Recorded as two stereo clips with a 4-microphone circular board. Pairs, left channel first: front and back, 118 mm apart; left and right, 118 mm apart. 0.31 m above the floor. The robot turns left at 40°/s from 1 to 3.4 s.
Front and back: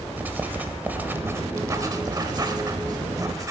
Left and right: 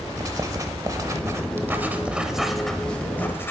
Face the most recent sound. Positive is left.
turn(degrees=145)